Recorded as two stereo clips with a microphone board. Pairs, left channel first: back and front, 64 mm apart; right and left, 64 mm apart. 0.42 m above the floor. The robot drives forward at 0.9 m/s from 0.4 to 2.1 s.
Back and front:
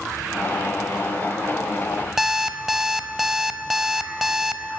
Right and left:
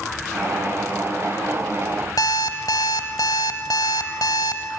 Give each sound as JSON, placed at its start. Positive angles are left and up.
{"t": 2.2, "sound": "an alarm clock", "azimuth_deg": -85, "distance_m": 1.3}